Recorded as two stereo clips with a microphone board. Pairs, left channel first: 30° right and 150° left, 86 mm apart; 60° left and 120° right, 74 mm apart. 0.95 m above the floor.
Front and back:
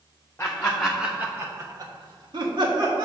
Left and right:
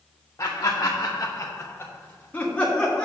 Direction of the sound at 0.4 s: 35° left.